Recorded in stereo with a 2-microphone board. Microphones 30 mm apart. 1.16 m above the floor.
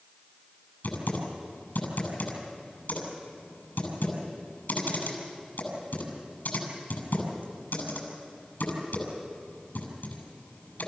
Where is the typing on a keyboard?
75° left (ahead or behind), 6.5 m.